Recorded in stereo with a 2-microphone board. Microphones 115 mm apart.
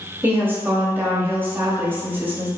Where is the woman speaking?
20° right (ahead or behind), 0.7 m.